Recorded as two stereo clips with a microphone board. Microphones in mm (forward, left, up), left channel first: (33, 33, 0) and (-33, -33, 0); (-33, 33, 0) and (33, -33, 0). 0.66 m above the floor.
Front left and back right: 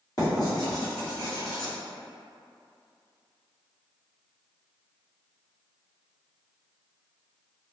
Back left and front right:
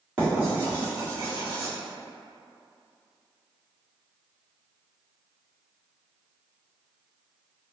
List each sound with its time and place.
0.2 s writing: 25° left, 1.6 m